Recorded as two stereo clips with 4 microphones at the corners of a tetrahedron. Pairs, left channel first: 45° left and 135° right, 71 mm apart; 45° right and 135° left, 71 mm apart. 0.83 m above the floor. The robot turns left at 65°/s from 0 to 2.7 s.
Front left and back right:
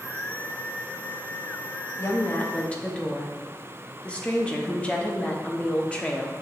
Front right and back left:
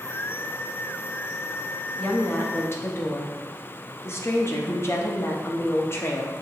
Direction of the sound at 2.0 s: 25° left.